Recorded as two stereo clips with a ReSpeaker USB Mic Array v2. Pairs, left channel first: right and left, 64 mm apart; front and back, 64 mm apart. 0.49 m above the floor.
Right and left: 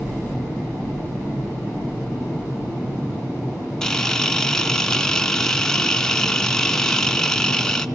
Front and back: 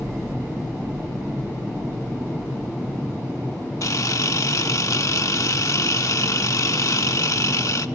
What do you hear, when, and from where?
3.8 s a camera shutter: 10° right, 0.6 m